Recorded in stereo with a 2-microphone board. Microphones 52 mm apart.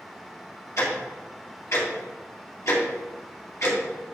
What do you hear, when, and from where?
0.8 s ticking: 70° left (ahead or behind), 2.5 m